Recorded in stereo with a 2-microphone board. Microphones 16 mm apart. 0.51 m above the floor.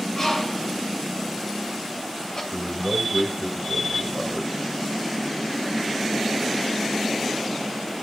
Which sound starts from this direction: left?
A bird, at 0.1 s.